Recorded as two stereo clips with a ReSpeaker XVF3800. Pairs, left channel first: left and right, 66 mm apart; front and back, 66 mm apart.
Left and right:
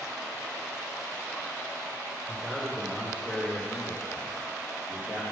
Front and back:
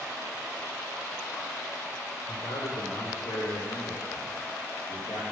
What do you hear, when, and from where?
2.3 s a man speaking: 10° right, 4.5 m; by 5.2 s 35° right, 3.5 m